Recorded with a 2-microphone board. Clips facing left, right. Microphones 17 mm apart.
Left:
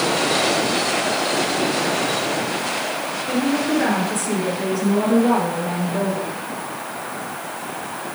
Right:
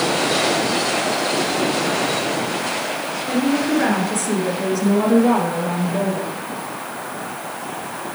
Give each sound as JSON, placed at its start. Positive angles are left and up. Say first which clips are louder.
{"t": 3.3, "sound": "a woman speaking", "louder": "right 1 dB", "side_deg": -10, "distance_m": 2.0}